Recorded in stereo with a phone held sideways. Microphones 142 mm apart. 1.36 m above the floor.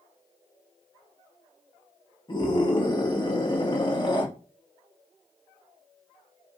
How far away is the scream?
About 2 m.